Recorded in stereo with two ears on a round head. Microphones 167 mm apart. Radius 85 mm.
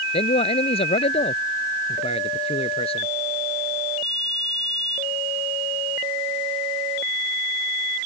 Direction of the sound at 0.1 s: 35° left (ahead or behind).